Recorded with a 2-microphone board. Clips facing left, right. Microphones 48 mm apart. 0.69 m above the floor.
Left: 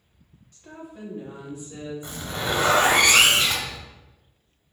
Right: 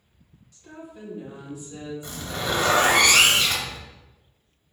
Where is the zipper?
20° left (ahead or behind), 0.8 m.